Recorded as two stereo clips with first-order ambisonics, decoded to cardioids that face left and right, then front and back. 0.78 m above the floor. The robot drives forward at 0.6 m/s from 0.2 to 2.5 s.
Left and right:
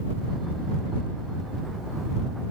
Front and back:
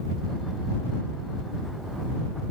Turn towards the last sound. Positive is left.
No sound to turn to.